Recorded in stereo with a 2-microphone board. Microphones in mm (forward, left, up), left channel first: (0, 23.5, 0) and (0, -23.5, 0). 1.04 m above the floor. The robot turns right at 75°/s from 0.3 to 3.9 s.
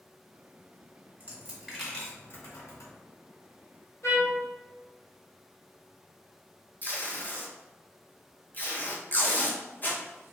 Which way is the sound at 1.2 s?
40° right (ahead or behind).